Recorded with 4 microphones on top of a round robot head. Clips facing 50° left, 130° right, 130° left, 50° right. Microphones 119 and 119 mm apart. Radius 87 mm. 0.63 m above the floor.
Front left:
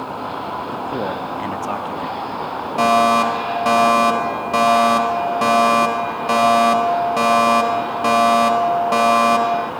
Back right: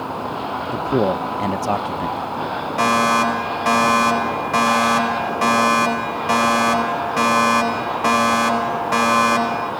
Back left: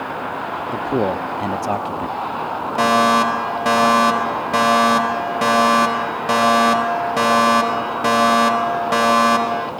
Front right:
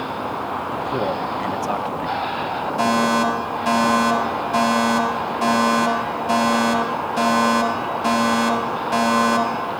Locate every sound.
0.7 s a man speaking: straight behind, 0.8 m
2.8 s a fire alarm: 120° left, 5 m